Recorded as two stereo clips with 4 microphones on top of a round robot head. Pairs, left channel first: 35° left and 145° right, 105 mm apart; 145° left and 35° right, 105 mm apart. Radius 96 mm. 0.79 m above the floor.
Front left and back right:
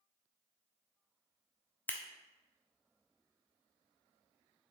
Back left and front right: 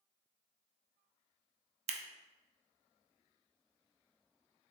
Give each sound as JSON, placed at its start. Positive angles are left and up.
{"t": 1.9, "sound": "scissors", "azimuth_deg": -35, "distance_m": 0.6}